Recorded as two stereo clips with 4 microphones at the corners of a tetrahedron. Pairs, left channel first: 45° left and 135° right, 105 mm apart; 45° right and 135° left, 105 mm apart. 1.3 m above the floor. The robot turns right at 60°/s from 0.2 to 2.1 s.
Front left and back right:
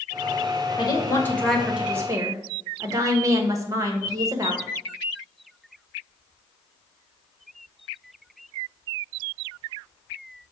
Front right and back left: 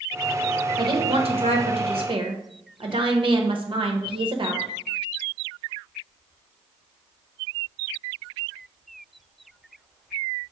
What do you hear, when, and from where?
0.8 s a woman speaking: 85° left, 1.0 m; by 4.7 s 165° left, 1.0 m